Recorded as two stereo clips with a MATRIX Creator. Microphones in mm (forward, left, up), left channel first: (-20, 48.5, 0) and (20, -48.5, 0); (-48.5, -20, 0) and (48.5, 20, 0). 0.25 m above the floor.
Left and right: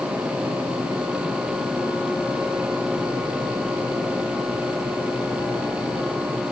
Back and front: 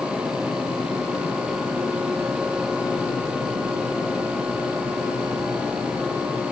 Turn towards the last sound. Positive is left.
No sound to turn to.